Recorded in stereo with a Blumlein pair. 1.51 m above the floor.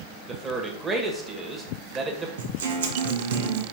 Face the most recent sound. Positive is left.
turn(degrees=-60)